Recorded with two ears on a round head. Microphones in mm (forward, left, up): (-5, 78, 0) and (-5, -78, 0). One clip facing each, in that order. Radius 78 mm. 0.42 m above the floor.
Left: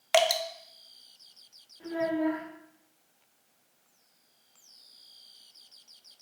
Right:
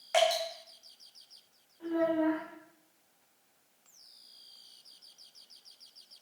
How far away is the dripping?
About 0.5 m.